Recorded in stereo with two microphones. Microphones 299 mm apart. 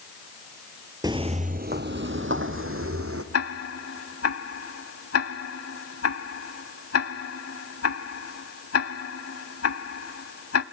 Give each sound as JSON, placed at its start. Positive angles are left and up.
{"t": 1.0, "sound": "footsteps", "side_deg": -15, "distance_m": 0.6}
{"t": 3.3, "sound": "ticking", "side_deg": 55, "distance_m": 0.7}